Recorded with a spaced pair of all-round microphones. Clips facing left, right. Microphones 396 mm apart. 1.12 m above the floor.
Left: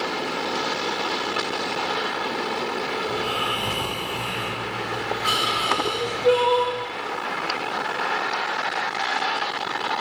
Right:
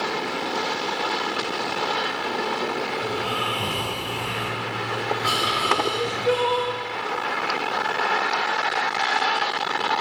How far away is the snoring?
About 7 m.